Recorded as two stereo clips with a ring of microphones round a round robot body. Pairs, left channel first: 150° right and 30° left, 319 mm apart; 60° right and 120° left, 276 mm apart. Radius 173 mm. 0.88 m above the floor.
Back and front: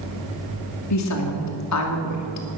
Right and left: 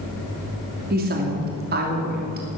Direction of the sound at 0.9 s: 175° left.